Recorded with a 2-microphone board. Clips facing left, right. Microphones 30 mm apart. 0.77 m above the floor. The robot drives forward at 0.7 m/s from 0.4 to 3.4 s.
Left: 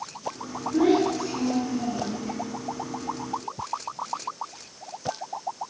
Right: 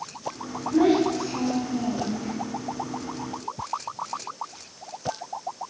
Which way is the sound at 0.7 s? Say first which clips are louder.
Right 1 dB; 60° right (ahead or behind).